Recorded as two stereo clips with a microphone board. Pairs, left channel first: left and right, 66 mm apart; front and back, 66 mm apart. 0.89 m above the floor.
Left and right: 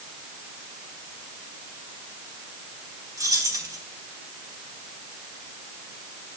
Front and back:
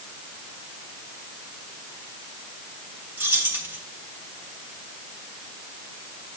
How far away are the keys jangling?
About 3 m.